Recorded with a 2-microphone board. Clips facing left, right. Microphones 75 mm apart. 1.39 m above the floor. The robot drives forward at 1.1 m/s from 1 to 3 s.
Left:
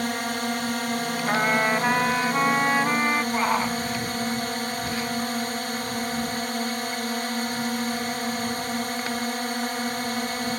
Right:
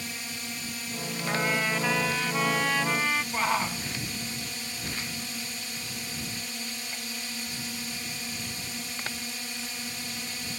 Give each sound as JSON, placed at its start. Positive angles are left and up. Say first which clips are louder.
{"t": 0.0, "sound": "a drone", "louder": "left 12 dB", "side_deg": 60}
{"t": 1.3, "sound": "a trumpet", "louder": "left 5 dB", "side_deg": 40}
{"t": 3.3, "sound": "a shout", "louder": "left 4 dB", "side_deg": 10}